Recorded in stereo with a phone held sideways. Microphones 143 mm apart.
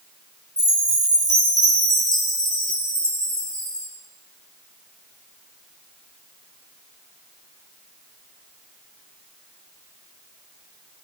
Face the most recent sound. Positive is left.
turn(degrees=-55)  # may be behind; listen again after turning